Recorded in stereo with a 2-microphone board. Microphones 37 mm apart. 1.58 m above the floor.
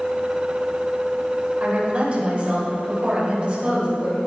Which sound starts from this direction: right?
A woman speaking, at 1.6 s.